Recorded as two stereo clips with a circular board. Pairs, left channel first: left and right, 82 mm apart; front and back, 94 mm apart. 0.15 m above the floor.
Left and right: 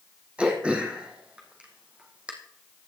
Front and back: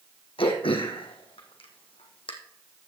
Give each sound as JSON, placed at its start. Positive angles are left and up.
{"t": 0.4, "sound": "throat clearing", "azimuth_deg": -15, "distance_m": 2.5}